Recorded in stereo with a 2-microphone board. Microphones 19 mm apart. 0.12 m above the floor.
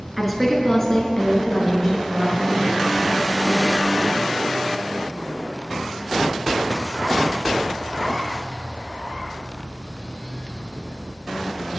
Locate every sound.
0.2 s a woman speaking: 5° right (ahead or behind), 1.5 m; by 2.4 s 60° left (ahead or behind), 3.5 m